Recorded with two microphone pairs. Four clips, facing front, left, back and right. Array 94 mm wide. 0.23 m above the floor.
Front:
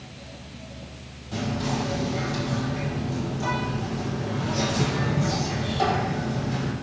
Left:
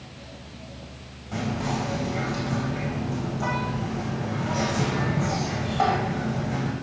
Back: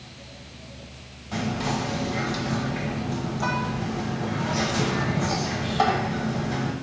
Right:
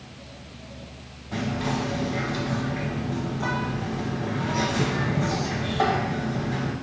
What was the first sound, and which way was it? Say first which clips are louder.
Whispering: right 1 dB, back 1 dB; 175° left.